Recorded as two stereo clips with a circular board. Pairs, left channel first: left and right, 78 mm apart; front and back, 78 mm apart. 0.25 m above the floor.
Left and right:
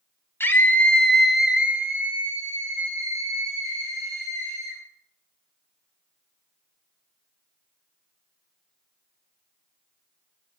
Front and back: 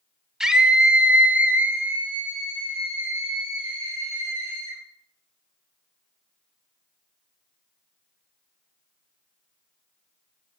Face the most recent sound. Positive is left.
turn(degrees=-115)